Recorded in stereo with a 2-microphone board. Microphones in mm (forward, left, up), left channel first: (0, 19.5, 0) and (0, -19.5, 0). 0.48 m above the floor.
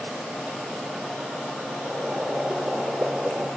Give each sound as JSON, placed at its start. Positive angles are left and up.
{"t": 1.8, "sound": "boiling", "side_deg": -35, "distance_m": 5.0}